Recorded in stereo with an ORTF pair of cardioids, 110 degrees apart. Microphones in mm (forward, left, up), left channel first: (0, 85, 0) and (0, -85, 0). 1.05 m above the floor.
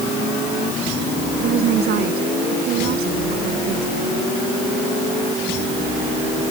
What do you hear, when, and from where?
1.4 s a woman speaking: 65° right; by 4.3 s 75° right